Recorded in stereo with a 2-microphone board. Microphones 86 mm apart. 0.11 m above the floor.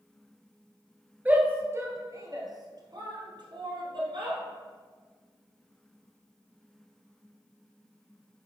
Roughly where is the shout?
Centre.